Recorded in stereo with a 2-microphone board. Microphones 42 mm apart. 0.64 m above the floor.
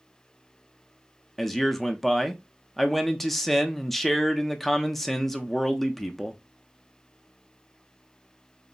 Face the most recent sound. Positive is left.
turn(degrees=5)  # may be behind; listen again after turning